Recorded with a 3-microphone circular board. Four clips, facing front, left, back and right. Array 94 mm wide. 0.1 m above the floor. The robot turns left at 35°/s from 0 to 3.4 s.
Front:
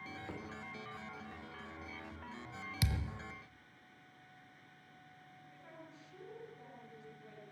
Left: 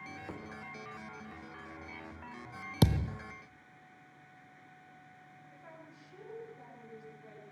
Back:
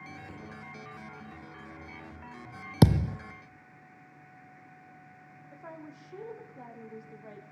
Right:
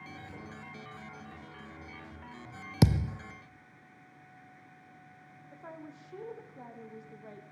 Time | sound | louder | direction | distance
0.3 | a drawer | left 3 dB, even | 70° left | 6.5 m
2.8 | a thud | right 3 dB, back 18 dB | 175° right | 0.7 m
5.5 | a woman speaking | right 8 dB, back 11 dB | 145° right | 5.5 m